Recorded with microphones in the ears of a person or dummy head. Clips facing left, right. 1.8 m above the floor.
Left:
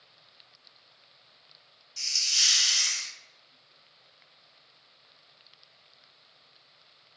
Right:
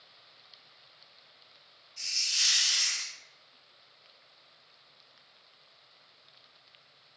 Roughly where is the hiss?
Left.